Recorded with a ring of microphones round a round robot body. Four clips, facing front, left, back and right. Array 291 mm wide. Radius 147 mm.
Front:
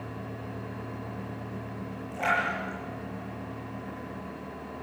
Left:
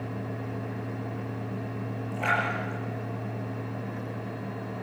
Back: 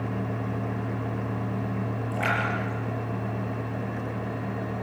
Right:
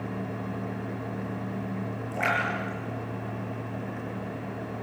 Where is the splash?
120° right, 7.5 m.